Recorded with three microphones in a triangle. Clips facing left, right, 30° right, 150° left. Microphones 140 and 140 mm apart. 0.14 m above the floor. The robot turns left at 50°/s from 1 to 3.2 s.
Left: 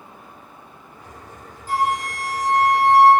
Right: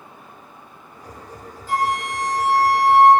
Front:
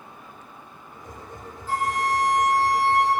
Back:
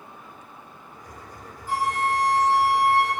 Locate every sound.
1.7 s a flute: 80° left, 1.0 m; by 3.1 s 10° left, 1.0 m